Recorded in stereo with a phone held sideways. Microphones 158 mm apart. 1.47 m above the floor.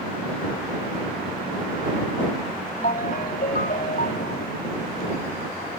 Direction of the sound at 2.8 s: 65° left (ahead or behind).